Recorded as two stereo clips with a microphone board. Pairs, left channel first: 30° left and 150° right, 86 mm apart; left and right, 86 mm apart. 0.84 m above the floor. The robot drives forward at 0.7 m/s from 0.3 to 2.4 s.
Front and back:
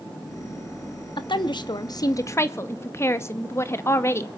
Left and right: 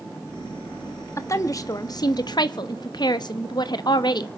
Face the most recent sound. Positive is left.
turn(degrees=85)